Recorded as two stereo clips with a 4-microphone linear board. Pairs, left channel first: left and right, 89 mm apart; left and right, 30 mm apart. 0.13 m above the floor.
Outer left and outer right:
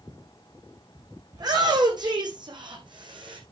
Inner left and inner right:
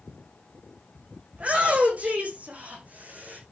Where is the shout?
45° right (ahead or behind), 6.5 m; by 3.4 s 60° right (ahead or behind), 6 m.